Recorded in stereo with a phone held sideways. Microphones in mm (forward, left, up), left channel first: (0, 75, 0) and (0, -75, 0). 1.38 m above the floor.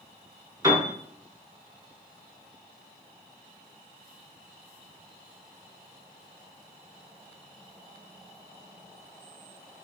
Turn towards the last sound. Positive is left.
turn(degrees=-25)  # may be behind; listen again after turning